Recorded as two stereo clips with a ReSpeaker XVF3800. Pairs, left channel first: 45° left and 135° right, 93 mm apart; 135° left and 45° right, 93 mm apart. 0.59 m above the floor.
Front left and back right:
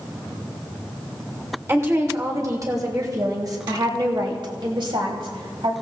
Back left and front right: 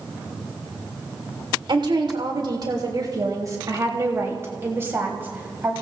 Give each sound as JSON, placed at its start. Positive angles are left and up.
{"t": 1.7, "sound": "a woman speaking", "azimuth_deg": -75, "distance_m": 3.0}